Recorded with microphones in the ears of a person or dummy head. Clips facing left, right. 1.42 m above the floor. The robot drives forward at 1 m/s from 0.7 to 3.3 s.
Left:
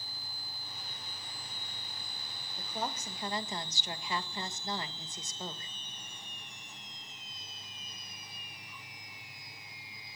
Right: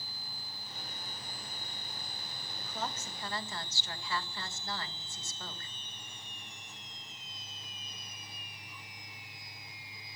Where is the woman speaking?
15° left (ahead or behind), 2.5 m; by 5.7 s 20° left (ahead or behind), 1.6 m.